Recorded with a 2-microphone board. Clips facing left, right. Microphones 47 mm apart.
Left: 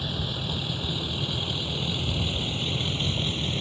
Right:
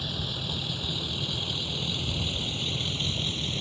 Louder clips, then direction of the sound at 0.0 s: Left 2 dB; 15° left (ahead or behind).